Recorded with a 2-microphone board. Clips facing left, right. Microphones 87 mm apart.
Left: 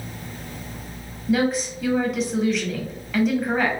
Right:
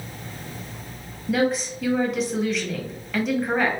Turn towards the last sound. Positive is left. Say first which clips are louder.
# left 1 dB
turn(degrees=0)  # may be behind; listen again after turning